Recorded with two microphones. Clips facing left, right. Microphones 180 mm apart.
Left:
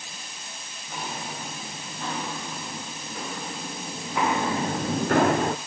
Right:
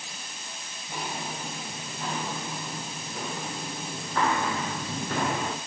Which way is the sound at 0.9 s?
10° right (ahead or behind).